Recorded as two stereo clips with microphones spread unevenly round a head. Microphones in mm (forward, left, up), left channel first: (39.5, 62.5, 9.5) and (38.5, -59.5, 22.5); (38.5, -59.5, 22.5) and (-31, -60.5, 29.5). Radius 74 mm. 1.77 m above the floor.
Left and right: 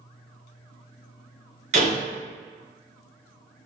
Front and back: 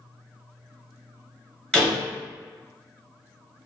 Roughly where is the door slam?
Right.